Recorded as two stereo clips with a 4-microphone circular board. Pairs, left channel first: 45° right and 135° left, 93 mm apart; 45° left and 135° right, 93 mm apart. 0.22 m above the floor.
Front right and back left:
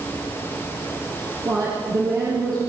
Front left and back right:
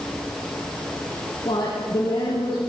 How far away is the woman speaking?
About 6.5 m.